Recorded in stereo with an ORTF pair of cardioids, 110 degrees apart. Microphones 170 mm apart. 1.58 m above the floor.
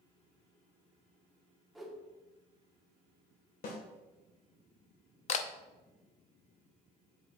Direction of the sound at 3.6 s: 55° left.